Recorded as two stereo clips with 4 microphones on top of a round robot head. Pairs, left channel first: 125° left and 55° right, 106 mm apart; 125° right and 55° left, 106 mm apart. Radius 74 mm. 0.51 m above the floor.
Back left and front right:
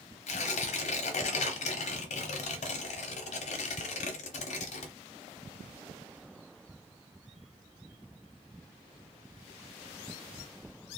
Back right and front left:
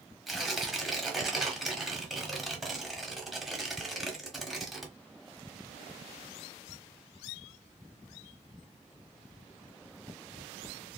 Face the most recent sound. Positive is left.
turn(degrees=140)